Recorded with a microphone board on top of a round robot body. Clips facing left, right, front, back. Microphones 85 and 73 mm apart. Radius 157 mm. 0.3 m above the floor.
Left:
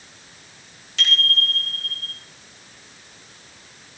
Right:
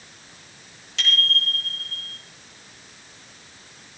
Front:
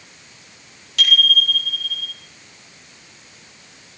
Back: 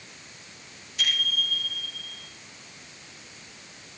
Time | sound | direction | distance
1.0 | a bicycle bell | straight ahead | 9 m